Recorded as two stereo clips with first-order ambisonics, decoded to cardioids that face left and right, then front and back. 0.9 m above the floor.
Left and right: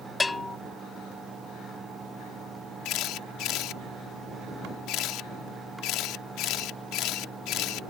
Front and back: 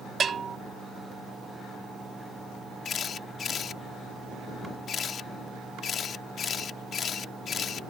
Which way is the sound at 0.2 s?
155° left.